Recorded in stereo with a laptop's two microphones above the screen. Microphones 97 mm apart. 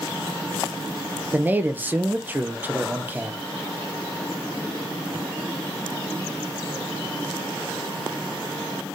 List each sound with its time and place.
1.3 s a man speaking: 20° right (ahead or behind), 0.6 m